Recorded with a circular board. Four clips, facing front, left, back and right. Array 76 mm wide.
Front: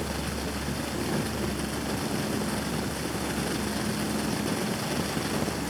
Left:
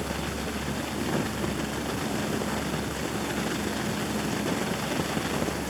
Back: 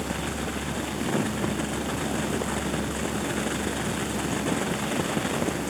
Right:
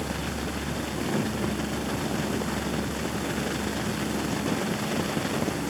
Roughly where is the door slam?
I don't hear a door slam.